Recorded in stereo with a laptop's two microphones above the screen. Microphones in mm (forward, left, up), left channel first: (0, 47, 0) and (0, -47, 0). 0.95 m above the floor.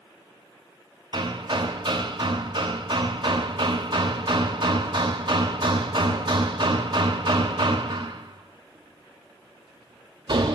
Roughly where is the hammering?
Right.